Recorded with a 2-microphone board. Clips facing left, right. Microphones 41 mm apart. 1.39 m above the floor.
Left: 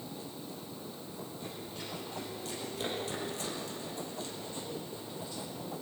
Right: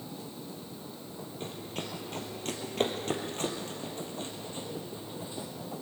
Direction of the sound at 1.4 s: 60° right (ahead or behind).